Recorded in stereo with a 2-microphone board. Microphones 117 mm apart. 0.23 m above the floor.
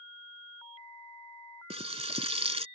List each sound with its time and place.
1.7 s frying: 60° right (ahead or behind)